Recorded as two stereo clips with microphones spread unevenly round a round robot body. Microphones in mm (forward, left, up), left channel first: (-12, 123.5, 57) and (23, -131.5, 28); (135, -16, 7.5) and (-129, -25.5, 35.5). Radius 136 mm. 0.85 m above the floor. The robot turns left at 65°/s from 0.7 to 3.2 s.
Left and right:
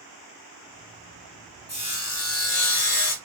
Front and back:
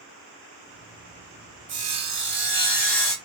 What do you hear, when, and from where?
1.7 s sawing: 165° left, 1.7 m; by 3.1 s 75° left, 1.7 m